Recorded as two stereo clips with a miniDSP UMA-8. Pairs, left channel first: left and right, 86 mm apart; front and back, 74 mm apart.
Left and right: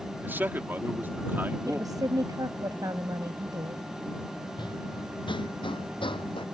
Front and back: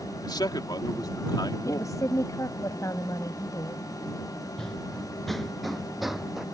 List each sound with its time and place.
0.2 s a man speaking: 25° right
1.7 s a woman speaking: 45° right
4.6 s running footsteps: 80° left; by 6.5 s 95° left